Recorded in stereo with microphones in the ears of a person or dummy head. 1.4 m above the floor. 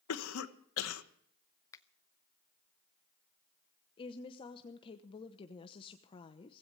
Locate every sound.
0.1 s a cough: 80° left, 1.4 m
1.7 s a finger snap: 15° left (ahead or behind), 0.7 m
4.0 s a woman speaking: 25° left (ahead or behind), 0.9 m